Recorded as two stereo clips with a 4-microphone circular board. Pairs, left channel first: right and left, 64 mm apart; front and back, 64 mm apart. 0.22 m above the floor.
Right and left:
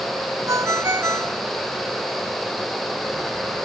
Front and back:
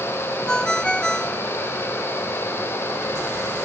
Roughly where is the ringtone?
Left.